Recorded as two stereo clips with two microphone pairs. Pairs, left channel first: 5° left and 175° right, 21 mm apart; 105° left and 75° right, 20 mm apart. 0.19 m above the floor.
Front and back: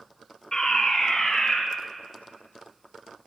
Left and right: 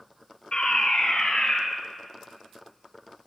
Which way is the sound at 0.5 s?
65° left.